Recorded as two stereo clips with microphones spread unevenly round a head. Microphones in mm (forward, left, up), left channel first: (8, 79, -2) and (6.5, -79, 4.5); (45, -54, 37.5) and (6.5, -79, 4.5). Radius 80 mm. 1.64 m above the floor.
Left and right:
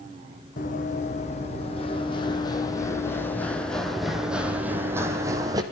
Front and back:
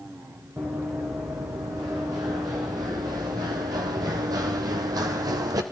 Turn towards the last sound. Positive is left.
turn(degrees=-155)